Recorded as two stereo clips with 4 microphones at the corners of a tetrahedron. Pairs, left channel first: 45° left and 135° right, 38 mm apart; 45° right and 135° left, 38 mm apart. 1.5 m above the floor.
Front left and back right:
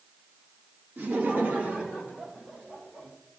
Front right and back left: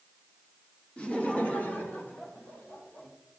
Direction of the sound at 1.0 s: 110° right.